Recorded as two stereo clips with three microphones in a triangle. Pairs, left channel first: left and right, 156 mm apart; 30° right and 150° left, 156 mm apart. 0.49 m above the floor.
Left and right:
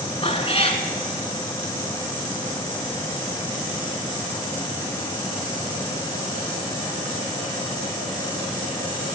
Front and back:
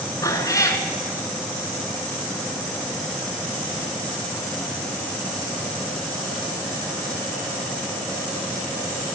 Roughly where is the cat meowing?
Ahead left.